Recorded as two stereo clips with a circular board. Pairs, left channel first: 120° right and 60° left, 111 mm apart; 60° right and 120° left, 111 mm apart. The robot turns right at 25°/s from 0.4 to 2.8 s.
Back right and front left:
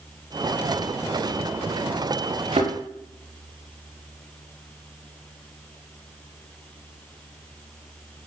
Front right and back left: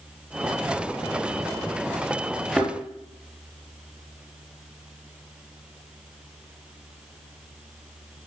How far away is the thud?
About 4.5 m.